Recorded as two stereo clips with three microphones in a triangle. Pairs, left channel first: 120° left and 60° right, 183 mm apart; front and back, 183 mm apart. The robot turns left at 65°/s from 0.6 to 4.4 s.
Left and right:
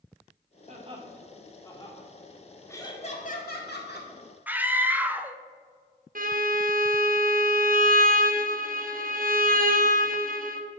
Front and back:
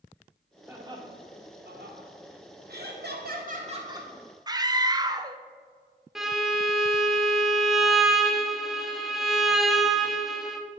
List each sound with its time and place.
0.7 s laughter: 100° right, 1.9 m; by 2.1 s 165° left, 1.9 m
2.7 s laughter: 165° right, 1.8 m; by 4.1 s 105° left, 1.8 m
4.5 s a scream: 135° right, 0.5 m
6.2 s a violin: 95° right, 0.7 m